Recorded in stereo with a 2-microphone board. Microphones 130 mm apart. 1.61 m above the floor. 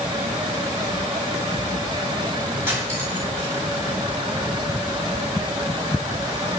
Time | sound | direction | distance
2.7 | cutlery clinking | 15° right (ahead or behind) | 1.1 m